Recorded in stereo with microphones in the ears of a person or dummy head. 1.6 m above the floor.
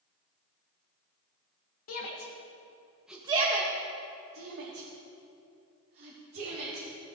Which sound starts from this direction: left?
A shout, at 1.9 s.